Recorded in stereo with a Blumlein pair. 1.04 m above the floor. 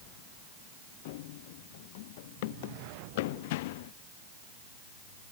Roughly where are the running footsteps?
Ahead left.